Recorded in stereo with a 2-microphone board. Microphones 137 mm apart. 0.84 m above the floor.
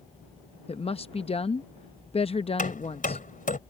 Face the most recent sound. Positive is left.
turn(degrees=80)